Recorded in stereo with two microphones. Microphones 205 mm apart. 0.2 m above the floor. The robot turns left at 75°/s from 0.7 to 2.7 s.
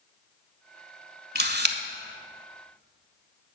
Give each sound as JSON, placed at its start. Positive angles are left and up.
{"t": 1.4, "sound": "a camera shutter", "side_deg": -55, "distance_m": 0.7}